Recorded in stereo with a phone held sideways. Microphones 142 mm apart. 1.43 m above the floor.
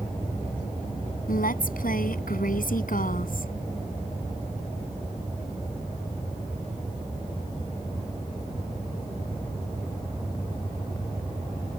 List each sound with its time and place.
1.3 s a woman speaking: 80° left; by 3.5 s 75° left (ahead or behind)